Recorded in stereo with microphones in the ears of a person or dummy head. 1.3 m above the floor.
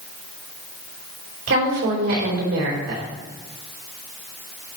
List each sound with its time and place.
1.5 s a woman speaking: 75° right (ahead or behind), 4 m